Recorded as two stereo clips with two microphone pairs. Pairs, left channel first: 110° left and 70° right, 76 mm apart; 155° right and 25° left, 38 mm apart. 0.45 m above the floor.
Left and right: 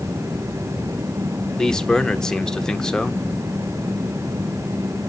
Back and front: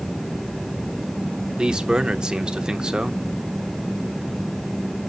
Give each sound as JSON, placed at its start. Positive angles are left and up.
{"t": 1.6, "sound": "a man speaking", "azimuth_deg": 50, "distance_m": 0.8}